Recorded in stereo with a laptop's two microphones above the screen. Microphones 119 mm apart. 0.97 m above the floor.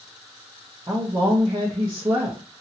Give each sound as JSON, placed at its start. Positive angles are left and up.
{"t": 0.9, "sound": "a woman speaking", "side_deg": -30, "distance_m": 0.8}